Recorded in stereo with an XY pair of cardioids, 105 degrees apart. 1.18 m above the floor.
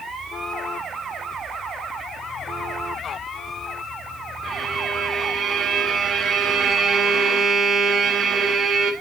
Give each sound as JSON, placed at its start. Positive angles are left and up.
{"t": 4.4, "sound": "a violin", "azimuth_deg": -55, "distance_m": 1.0}